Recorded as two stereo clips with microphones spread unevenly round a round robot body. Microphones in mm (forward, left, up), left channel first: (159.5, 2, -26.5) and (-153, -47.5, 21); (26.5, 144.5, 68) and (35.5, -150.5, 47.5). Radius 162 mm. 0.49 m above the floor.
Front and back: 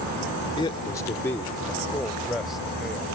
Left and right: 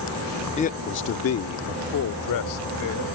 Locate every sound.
0.6 s a man speaking: 40° left; by 3.0 s 95° left